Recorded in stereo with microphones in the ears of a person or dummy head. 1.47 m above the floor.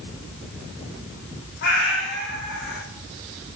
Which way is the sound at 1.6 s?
60° left (ahead or behind).